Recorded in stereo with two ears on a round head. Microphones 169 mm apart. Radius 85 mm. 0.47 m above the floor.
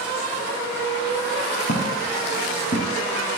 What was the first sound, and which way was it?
Footsteps, 50° left (ahead or behind).